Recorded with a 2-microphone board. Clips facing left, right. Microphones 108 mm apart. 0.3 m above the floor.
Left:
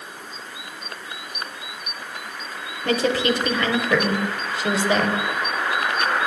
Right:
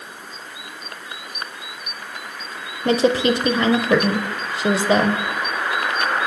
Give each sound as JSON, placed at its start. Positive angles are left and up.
{"t": 2.9, "sound": "a woman speaking", "side_deg": -25, "distance_m": 0.9}